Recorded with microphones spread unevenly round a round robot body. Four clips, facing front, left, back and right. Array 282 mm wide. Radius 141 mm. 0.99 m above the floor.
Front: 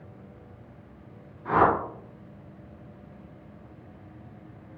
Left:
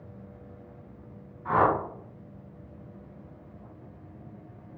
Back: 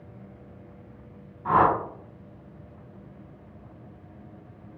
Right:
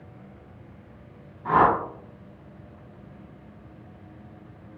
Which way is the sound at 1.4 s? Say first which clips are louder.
Right 4 dB, back 1 dB; 140° right.